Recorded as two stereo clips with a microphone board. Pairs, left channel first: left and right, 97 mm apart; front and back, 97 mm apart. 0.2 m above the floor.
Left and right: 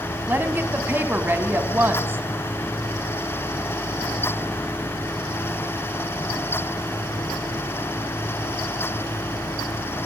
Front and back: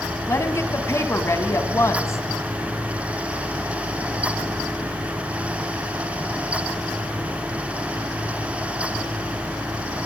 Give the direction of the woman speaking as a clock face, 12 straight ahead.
1 o'clock.